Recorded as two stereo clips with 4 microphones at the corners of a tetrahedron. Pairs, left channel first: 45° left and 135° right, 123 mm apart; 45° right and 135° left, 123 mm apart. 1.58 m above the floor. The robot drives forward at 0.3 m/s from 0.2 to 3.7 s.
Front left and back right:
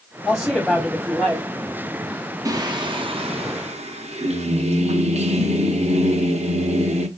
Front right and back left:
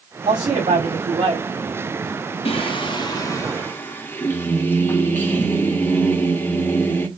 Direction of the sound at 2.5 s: 80° right.